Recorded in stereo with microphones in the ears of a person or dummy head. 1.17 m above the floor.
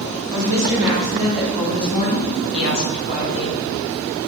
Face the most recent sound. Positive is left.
turn(degrees=50)  # may be behind; listen again after turning